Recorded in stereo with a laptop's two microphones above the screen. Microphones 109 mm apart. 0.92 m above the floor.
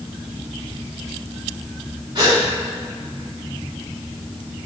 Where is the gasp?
40° right (ahead or behind), 3 m.